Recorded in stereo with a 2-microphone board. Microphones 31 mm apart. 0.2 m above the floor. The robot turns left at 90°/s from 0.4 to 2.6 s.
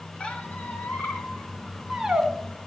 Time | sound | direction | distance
0.2 | a squeak | 35° left (ahead or behind) | 1.8 m